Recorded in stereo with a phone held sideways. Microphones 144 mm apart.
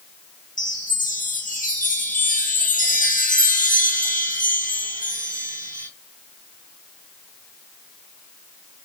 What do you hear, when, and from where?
0.6 s a chime: 70° left (ahead or behind), 3 m